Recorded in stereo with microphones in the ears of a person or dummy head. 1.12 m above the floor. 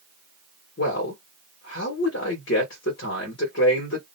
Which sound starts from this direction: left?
A man speaking, at 0.8 s.